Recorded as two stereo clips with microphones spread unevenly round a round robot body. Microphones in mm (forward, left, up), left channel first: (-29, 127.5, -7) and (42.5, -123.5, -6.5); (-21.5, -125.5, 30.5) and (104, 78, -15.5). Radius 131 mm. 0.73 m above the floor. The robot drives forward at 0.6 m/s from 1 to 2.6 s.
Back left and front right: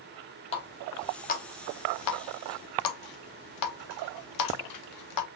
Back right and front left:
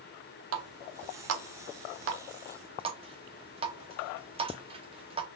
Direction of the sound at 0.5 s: 35° left.